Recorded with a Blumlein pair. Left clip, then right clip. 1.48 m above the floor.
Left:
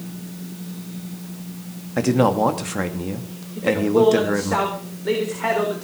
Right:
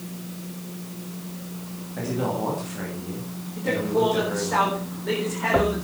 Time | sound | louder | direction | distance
2.0 | a man speaking | left 9 dB | 55° left | 2.5 m
3.6 | a man speaking | left 5 dB | 15° left | 4 m